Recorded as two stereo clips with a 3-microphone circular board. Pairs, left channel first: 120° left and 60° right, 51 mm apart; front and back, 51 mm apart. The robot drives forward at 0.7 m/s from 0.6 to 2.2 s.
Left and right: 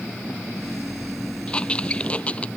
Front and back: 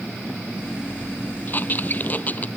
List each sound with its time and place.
1.5 s a squeak: 50° left; by 2.5 s 55° left